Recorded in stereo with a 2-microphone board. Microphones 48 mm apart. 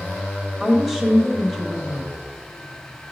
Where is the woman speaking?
5° right (ahead or behind), 1.1 m.